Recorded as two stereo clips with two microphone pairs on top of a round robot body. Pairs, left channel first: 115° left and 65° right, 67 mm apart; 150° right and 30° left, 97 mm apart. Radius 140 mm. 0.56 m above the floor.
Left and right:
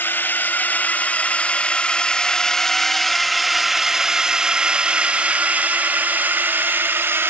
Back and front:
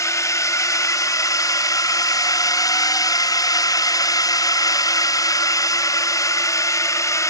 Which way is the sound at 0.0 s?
160° left.